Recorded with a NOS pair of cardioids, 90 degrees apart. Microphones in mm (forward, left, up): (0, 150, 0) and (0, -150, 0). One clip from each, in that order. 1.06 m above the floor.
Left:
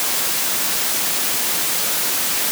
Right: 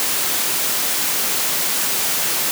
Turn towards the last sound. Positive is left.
No sound to turn to.